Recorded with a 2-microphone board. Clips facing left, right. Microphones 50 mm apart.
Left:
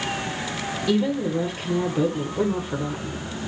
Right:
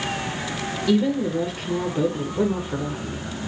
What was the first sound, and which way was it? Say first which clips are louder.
A woman speaking: right 2 dB; centre (ahead or behind).